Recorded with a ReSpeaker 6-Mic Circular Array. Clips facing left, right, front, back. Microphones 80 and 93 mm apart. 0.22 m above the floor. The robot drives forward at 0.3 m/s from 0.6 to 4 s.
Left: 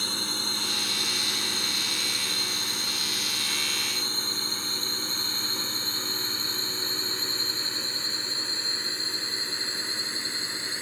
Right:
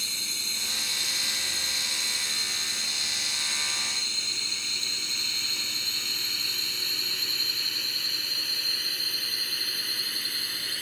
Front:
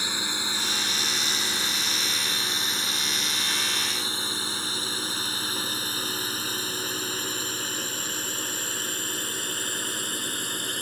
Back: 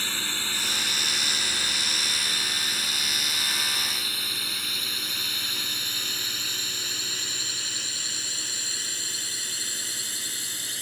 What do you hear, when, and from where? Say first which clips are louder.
0.0 s a drone: left 7 dB, front 2 dB; 70° left; by 10.8 s 25° left